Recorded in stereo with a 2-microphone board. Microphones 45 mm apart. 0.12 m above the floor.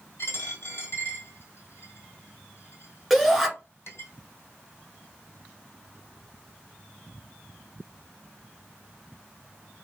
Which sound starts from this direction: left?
A dropped coin, at 0.2 s.